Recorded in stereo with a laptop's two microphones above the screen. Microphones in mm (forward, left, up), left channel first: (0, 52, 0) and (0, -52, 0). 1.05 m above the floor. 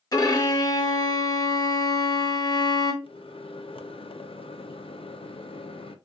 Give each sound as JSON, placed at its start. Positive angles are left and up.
{"t": 0.1, "sound": "a violin", "side_deg": 40, "distance_m": 0.6}
{"t": 3.0, "sound": "a microwave", "side_deg": 60, "distance_m": 0.5}